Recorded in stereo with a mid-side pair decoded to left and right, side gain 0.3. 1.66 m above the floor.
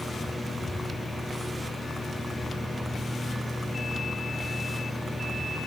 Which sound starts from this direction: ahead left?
A fan, at 0.0 s.